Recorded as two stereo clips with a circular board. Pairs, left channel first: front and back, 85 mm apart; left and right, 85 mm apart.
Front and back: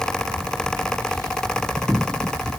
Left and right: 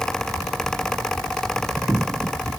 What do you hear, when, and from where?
Only background noise.